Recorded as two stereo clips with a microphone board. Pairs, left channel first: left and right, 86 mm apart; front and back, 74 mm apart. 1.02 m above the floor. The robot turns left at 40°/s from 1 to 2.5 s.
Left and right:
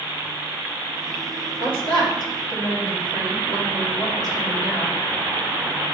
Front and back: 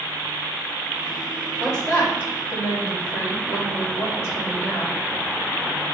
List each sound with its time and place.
1.6 s a woman speaking: 85° left, 1.6 m; by 5.0 s 50° left, 1.6 m